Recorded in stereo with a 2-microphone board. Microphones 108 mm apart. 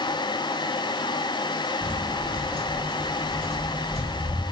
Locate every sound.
1.8 s footsteps: 45° right (ahead or behind), 1.1 m; by 4.4 s 70° right (ahead or behind), 4 m